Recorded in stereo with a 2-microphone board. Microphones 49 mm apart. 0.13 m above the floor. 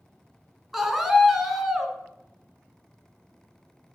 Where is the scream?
5° right (ahead or behind), 1.1 m.